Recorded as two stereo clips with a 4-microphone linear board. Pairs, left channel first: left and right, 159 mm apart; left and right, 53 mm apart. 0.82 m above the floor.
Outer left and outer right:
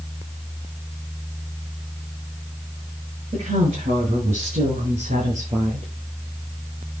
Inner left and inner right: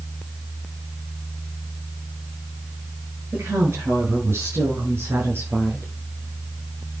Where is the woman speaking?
40° right (ahead or behind), 9.5 m; by 5.9 s 55° right (ahead or behind), 10.5 m.